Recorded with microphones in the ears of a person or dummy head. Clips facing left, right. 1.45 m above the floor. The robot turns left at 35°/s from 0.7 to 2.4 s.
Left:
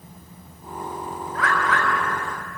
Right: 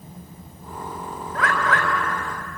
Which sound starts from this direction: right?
A bird, at 1.4 s.